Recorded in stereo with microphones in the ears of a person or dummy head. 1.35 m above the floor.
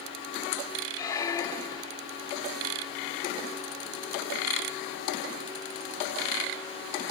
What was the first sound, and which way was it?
A squeak, 20° left (ahead or behind).